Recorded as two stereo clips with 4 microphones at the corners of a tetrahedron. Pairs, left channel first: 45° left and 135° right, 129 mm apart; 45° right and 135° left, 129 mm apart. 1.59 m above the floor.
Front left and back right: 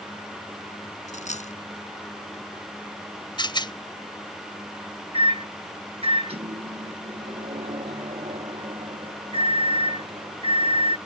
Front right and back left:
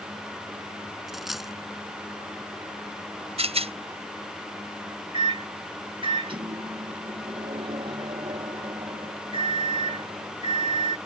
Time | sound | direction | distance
1.1 | a dropped coin | 45° left | ?
3.4 | a rattle | 95° left | ?
5.1 | a microwave | 175° right | ?